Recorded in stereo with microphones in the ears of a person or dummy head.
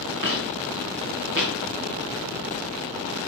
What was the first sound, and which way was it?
Footsteps, 60° right (ahead or behind).